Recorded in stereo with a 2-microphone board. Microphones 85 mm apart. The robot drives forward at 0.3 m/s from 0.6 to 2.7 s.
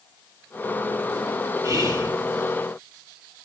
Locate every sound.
1.6 s whispering: 45° right (ahead or behind), 1.6 m